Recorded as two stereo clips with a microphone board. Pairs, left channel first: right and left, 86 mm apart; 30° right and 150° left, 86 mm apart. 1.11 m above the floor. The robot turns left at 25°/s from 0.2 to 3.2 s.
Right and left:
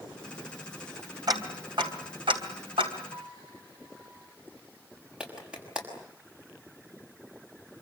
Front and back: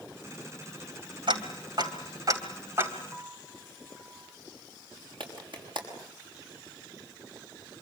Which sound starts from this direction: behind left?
Ticking, at 1.3 s.